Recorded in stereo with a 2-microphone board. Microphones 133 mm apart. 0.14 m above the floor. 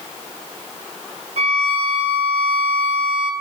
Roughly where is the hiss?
I don't hear a hiss.